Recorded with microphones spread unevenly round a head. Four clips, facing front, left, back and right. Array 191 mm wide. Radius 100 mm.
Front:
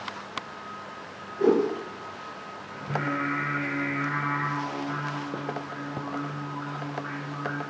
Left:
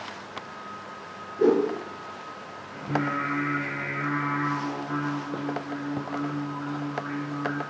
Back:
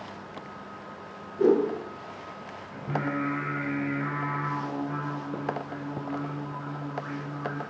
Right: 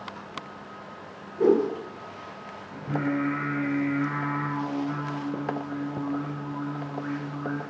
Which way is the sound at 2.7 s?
115° right.